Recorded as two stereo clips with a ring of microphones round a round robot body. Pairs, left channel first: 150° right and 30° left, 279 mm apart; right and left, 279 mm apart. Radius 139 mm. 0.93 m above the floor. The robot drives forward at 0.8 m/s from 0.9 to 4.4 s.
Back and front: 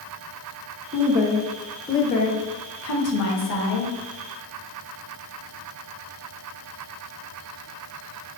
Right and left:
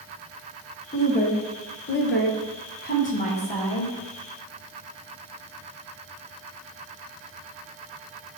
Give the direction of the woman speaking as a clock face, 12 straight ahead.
1 o'clock.